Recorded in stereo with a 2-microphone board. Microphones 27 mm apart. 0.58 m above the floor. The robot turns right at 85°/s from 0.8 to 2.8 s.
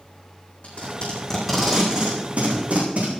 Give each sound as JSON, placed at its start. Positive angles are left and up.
{"t": 0.6, "sound": "tape being pulled", "side_deg": 60, "distance_m": 7.0}